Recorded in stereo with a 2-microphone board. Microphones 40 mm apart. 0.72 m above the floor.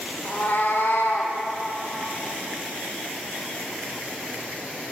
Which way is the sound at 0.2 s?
55° left (ahead or behind).